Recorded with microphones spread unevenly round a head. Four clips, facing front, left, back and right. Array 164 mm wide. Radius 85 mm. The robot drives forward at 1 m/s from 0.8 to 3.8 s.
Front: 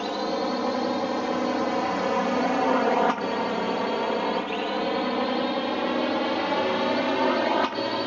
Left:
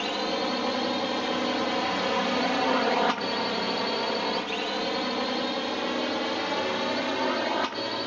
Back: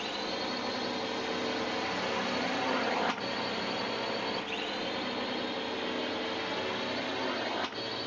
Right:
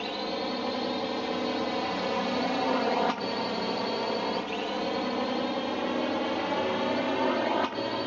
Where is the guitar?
I don't hear a guitar.